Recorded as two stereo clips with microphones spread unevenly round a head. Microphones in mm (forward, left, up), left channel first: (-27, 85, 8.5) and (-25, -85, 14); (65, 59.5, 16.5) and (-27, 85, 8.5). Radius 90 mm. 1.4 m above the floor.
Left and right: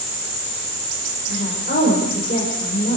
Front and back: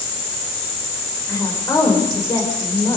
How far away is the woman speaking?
About 6 m.